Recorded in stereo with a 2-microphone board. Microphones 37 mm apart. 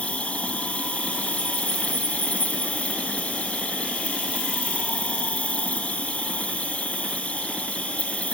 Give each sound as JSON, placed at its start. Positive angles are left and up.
{"t": 0.0, "sound": "an insect", "side_deg": 30, "distance_m": 1.2}